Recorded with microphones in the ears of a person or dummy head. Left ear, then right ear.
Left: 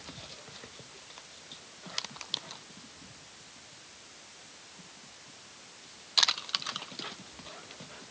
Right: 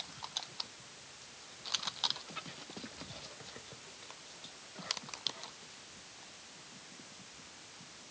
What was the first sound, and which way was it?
Only background noise.